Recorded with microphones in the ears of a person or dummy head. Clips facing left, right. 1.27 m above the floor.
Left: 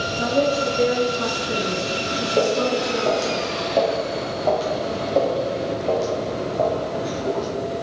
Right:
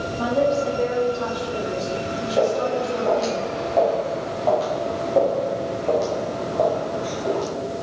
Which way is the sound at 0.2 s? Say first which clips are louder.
Even; 25° left (ahead or behind).